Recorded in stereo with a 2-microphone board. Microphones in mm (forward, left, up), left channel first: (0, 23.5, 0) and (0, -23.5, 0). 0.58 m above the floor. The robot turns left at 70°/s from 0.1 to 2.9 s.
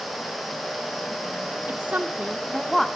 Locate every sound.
1.7 s a woman speaking: 105° right, 0.9 m; by 2.9 s 170° left, 0.9 m